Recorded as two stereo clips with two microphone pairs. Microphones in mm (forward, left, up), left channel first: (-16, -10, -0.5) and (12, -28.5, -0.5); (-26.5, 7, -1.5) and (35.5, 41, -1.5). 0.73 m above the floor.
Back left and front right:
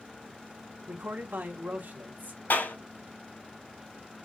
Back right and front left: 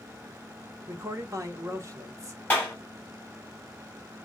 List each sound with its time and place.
0.9 s a man speaking: 15° right, 1.3 m
2.5 s a clap: 145° left, 4.5 m